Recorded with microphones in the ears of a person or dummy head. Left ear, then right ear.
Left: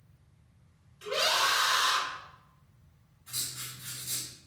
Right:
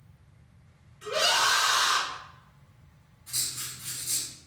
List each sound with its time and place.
1.0 s a scream: 40° left (ahead or behind), 1.7 m
3.3 s writing: centre (ahead or behind), 1.4 m